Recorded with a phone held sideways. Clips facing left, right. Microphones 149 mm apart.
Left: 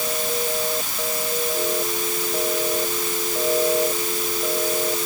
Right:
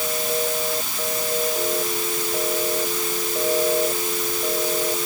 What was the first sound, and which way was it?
Only background noise.